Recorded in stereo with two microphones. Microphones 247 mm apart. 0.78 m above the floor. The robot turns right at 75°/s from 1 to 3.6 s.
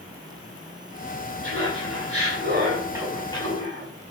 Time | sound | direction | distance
1.4 | laughter | 125° right | 6 m